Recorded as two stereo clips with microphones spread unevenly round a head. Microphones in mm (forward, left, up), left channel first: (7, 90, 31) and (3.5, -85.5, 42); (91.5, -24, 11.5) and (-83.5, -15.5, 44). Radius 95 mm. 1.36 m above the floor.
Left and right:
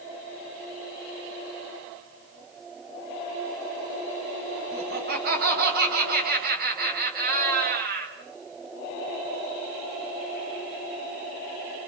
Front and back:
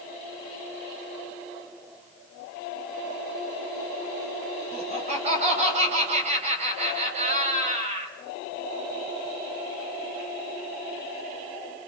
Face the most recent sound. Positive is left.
turn(degrees=-130)